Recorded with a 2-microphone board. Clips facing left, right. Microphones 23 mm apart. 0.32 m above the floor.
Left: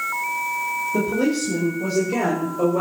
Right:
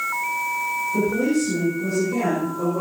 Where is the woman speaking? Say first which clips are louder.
Right 1 dB; 75° left (ahead or behind), 8.5 m; by 2.8 s 65° left (ahead or behind), 6 m.